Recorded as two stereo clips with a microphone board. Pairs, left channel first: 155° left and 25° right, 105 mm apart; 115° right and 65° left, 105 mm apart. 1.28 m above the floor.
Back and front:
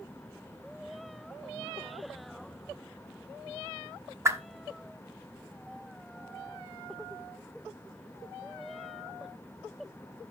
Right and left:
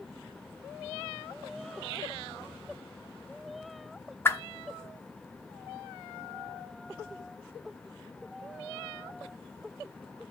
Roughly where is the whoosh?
Ahead right.